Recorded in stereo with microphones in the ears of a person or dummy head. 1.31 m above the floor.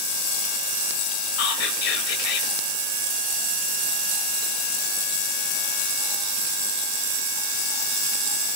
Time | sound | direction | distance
1.4 | whispering | 70° left (ahead or behind) | 2 m